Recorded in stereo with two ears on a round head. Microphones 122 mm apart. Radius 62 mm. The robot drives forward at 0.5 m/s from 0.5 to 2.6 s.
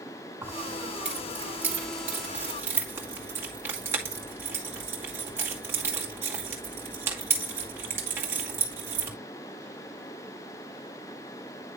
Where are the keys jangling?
10° right (ahead or behind), 3.5 m; by 9.1 s 15° right (ahead or behind), 2.5 m.